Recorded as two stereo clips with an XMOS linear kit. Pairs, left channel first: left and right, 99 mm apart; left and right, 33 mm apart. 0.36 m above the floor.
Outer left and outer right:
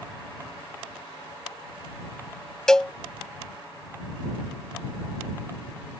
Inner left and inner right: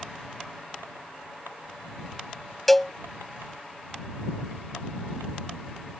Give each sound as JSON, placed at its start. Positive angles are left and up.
{"t": 2.7, "sound": "a cowbell", "side_deg": 5}